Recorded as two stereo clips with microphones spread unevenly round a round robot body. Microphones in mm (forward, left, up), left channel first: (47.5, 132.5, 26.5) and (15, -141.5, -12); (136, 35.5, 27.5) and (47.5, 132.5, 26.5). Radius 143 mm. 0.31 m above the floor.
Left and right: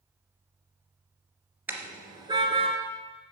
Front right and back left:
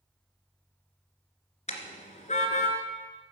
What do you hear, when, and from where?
1.7 s a car horn: 15° right, 2.5 m; by 2.8 s 30° right, 2 m